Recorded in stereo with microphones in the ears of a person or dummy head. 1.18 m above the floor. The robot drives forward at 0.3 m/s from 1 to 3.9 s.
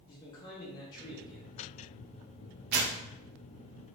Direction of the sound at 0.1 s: 20° left (ahead or behind).